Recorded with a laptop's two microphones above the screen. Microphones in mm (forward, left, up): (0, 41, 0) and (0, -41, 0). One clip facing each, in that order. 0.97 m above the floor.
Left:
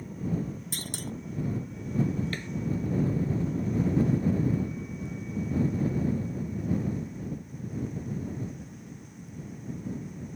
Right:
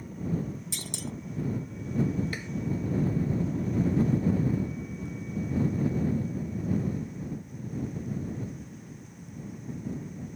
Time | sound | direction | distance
0.7 | a clunk | 45° left (ahead or behind) | ?
2.3 | tapping | 10° right (ahead or behind) | ?